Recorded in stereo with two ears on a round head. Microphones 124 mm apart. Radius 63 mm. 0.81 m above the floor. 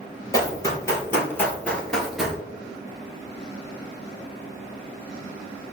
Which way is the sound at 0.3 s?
25° left (ahead or behind).